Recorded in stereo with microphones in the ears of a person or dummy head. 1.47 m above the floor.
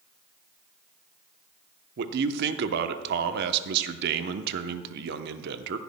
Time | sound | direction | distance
2.0 | a man speaking | 50° right (ahead or behind) | 0.8 m